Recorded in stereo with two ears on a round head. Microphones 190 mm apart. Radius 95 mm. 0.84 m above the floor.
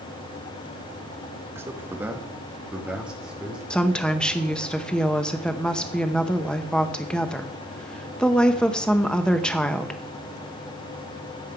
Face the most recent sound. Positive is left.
turn(degrees=5)  # may be behind; listen again after turning